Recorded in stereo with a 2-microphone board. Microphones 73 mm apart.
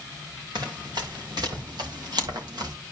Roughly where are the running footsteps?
Right.